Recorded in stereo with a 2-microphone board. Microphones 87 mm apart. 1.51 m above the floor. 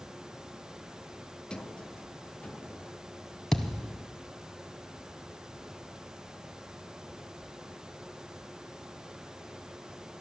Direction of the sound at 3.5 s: 5° left (ahead or behind).